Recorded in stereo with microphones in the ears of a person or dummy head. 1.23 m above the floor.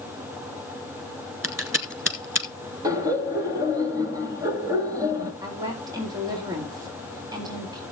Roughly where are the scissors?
Centre.